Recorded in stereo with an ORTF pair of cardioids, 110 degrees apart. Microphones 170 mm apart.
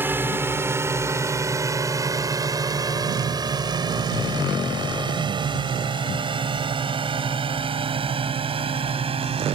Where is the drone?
15° right; by 9.6 s 35° right.